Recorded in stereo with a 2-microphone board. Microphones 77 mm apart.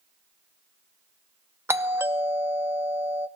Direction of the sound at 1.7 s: 30° right (ahead or behind).